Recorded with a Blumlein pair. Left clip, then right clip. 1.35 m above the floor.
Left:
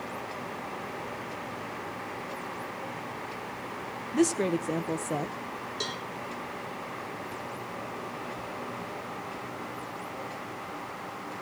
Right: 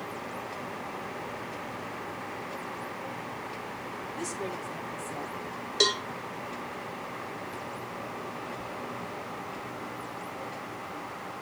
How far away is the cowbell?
About 0.8 m.